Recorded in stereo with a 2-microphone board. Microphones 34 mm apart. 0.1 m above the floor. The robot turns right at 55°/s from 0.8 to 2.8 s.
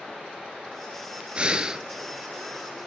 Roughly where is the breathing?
Right.